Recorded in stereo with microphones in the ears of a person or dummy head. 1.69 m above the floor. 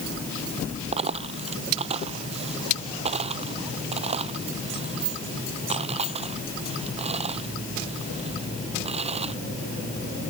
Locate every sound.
0.9 s a dropped coin: 40° right (ahead or behind)